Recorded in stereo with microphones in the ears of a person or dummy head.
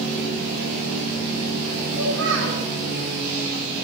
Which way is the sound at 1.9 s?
15° left (ahead or behind).